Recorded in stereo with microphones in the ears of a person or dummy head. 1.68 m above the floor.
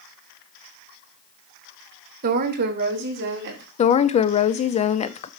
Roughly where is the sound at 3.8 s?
Left.